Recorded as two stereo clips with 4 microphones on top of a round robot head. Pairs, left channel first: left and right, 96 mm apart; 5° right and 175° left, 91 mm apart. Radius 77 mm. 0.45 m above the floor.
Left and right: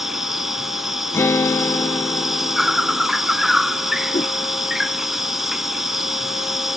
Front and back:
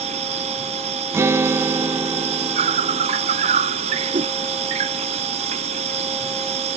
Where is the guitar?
135° left.